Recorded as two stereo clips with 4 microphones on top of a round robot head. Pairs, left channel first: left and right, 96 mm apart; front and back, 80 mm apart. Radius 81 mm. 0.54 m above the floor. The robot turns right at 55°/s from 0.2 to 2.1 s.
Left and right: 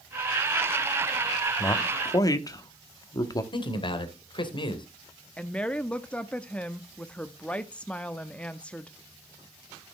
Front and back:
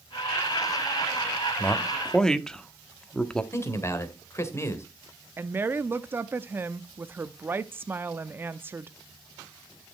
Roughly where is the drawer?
I don't hear a drawer.